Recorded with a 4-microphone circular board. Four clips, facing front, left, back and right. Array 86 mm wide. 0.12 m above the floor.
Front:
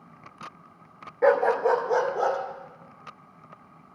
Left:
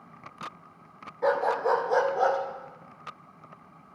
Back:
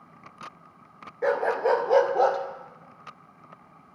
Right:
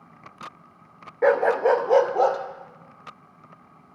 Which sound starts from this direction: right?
A dog barking, at 1.2 s.